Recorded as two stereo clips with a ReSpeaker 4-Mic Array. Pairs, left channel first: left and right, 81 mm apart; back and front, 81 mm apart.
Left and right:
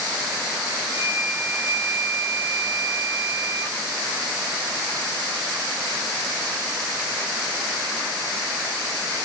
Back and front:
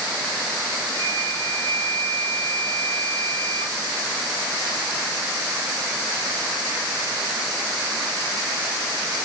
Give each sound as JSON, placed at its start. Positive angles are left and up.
{"t": 0.9, "sound": "a flute", "azimuth_deg": -95, "distance_m": 4.0}